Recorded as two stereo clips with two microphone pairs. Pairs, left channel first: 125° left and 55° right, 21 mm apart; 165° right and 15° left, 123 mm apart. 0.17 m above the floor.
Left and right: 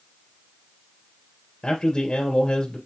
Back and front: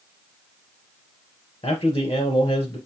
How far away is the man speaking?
About 2.5 m.